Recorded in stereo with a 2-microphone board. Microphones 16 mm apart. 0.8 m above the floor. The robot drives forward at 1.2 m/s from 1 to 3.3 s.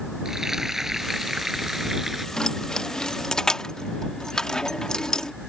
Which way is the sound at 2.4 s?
55° left (ahead or behind).